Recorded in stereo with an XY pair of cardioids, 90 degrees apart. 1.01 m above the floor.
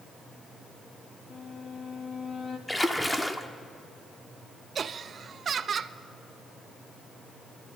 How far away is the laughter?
About 0.7 m.